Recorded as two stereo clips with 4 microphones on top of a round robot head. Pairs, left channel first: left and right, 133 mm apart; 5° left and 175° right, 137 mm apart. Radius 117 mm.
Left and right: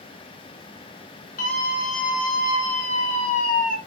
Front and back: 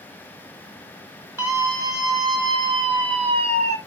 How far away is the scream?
About 5.5 m.